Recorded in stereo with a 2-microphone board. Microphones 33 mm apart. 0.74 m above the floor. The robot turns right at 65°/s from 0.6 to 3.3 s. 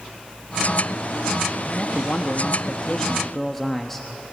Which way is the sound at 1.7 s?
60° left.